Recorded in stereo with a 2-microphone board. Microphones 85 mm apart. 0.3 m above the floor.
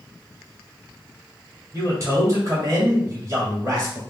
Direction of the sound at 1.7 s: 35° right (ahead or behind).